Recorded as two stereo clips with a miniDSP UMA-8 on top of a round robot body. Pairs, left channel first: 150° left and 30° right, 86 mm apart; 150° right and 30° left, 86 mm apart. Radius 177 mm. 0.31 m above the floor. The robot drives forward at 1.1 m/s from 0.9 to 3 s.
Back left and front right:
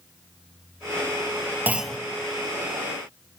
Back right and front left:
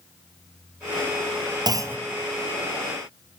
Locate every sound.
1.7 s a clunk: 30° left, 0.6 m; by 2.0 s 90° left, 0.5 m